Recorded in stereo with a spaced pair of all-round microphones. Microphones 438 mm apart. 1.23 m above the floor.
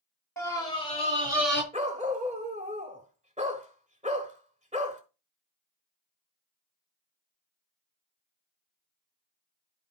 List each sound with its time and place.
0.4 s a scream: 5° left (ahead or behind), 3.5 m; by 1.6 s 25° left (ahead or behind), 2 m
1.7 s a dog barking: 15° right (ahead or behind), 1.3 m